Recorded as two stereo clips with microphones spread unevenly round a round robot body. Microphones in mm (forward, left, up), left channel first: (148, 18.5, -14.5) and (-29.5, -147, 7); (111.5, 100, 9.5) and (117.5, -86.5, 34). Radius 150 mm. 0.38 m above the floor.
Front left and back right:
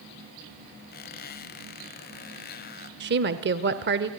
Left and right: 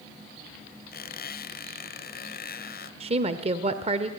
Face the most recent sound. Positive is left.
turn(degrees=-140)